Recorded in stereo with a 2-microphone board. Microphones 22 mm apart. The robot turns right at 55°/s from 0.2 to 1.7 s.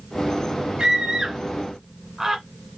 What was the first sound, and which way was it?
A scream, 40° right (ahead or behind).